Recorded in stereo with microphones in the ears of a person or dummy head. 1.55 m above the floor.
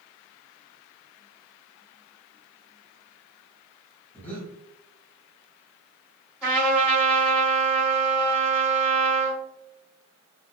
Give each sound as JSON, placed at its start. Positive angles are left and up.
{"t": 4.1, "sound": "breathing", "side_deg": 10, "distance_m": 0.7}
{"t": 6.4, "sound": "a trumpet", "side_deg": 0, "distance_m": 1.8}